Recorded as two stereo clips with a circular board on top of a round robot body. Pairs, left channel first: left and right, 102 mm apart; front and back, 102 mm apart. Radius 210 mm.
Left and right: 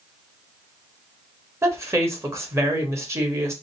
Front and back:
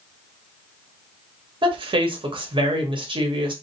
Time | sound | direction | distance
1.6 | a woman speaking | 150° right | 1.6 m